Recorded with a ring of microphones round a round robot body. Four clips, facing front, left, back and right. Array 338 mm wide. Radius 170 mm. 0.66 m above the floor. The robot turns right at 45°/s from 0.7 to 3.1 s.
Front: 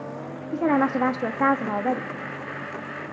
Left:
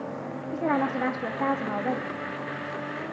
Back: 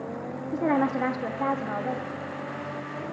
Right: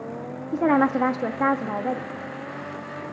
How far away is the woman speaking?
About 1.2 m.